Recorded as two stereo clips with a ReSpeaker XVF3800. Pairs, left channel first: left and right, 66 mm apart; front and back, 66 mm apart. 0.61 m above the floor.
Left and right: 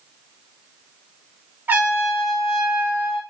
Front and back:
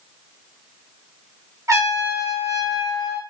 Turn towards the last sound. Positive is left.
turn(degrees=-150)